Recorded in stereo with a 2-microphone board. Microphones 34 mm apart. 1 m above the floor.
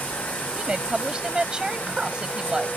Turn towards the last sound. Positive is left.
turn(degrees=-30)  # may be behind; listen again after turning